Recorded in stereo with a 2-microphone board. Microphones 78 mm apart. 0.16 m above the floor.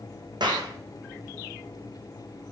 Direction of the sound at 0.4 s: 70° right (ahead or behind).